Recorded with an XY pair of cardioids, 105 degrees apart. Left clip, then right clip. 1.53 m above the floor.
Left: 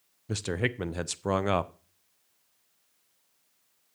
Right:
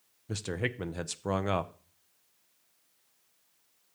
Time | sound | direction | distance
0.3 | a man speaking | 30° left | 0.6 m